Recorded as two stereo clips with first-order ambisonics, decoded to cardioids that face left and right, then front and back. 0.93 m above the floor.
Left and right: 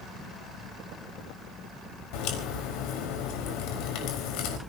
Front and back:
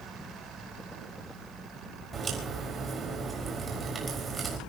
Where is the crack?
110° left, 4.5 m.